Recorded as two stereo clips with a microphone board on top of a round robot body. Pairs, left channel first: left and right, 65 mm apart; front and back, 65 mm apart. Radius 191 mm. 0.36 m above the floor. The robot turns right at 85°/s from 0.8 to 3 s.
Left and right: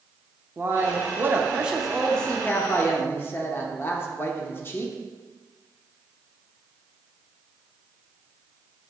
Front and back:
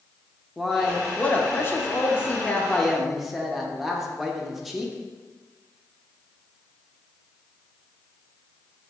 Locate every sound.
0.6 s a man speaking: 95° right, 0.9 m; by 4.9 s 95° left, 0.9 m